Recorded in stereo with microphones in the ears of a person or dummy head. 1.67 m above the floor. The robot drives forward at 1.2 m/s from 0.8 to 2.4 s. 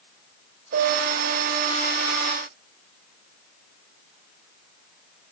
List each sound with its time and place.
0.7 s a piano: 50° right (ahead or behind), 2.5 m; by 1.7 s 35° right (ahead or behind), 3.5 m